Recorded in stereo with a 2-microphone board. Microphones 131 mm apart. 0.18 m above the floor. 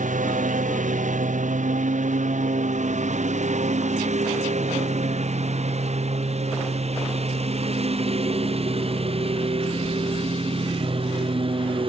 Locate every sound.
0.0 s a lawn mower: 80° right; by 11.9 s 45° right (ahead or behind)